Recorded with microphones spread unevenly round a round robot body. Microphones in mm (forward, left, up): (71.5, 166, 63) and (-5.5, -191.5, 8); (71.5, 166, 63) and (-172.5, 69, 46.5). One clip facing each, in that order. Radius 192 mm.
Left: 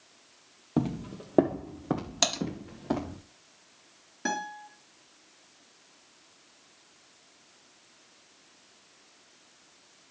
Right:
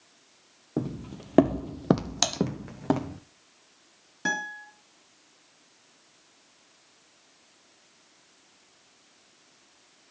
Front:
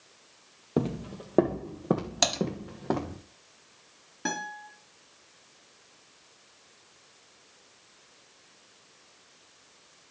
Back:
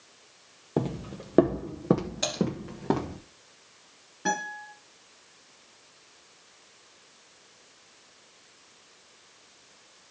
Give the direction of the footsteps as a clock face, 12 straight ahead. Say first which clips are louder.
Left 2 dB, front 1 dB; 9 o'clock.